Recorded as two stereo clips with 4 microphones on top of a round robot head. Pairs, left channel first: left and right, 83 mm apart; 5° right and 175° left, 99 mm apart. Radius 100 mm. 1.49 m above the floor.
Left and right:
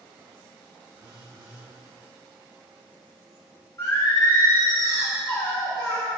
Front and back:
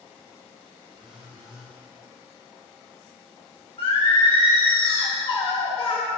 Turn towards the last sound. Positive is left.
turn(degrees=30)